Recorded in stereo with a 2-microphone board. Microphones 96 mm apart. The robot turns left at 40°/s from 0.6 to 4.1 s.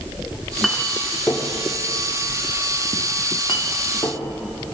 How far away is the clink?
About 1.2 m.